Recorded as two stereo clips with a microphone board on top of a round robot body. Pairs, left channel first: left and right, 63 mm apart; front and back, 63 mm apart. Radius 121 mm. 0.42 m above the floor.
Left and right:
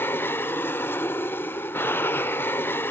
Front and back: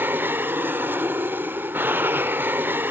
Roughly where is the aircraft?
Behind left.